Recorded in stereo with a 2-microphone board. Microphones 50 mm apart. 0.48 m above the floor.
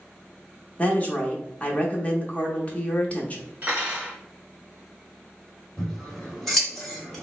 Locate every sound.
0.8 s a woman speaking: 30° left (ahead or behind), 0.8 m
3.6 s cutlery clinking: 35° right (ahead or behind), 1.4 m
5.8 s scissors: centre (ahead or behind), 1.6 m